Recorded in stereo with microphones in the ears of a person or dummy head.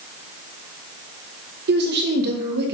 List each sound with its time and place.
1.7 s a woman speaking: 60° right (ahead or behind), 1.5 m